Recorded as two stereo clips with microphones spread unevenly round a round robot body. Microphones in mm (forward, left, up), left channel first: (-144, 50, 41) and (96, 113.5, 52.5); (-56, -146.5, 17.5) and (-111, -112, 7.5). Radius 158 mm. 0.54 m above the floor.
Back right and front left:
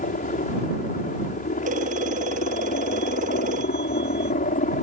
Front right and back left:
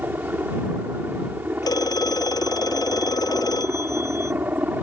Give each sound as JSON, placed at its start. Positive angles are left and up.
{"t": 0.0, "sound": "a helicopter", "azimuth_deg": 180}
{"t": 1.6, "sound": "a phone ringing", "azimuth_deg": -55}